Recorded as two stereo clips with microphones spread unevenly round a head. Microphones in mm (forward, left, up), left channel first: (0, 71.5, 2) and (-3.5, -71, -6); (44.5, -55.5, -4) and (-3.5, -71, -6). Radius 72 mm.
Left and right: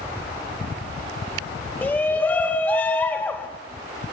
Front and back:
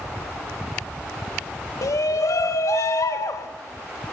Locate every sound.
1.8 s a shout: 10° left, 2.5 m